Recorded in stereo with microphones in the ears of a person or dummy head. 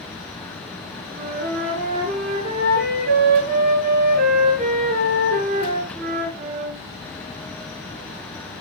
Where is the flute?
45° right (ahead or behind), 5.5 m.